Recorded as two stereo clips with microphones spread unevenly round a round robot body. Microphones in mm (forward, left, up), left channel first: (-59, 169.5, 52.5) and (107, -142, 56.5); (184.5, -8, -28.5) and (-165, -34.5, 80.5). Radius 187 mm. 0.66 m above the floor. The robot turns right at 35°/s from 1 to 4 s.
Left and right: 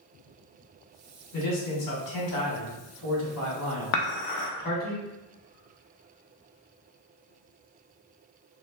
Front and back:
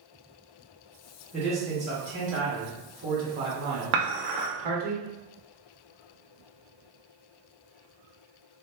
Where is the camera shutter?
No camera shutter in this recording.